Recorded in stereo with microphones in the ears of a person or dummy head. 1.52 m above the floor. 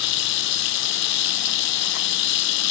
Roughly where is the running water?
Left.